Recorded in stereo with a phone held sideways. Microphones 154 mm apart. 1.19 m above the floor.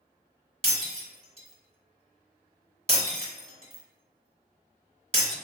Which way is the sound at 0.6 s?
40° right (ahead or behind).